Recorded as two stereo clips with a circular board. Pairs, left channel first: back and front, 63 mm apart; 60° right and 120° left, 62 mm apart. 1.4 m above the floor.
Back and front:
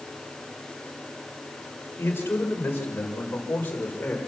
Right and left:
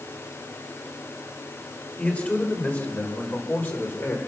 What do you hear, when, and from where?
2.0 s a man speaking: 125° right, 5.5 m; by 4.2 s 115° right, 5 m